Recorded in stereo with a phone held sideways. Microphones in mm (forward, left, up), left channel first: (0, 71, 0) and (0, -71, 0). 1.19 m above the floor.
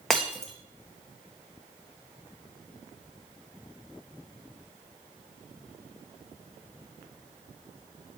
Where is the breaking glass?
Centre (ahead or behind), 1.8 m.